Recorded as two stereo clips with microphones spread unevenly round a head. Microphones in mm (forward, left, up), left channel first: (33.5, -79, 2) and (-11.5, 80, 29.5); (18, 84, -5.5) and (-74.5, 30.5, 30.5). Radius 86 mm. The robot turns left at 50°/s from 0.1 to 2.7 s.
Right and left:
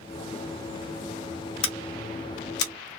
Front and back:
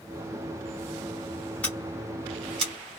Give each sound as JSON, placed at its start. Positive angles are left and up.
{"t": 1.6, "sound": "scissors", "azimuth_deg": -60, "distance_m": 0.8}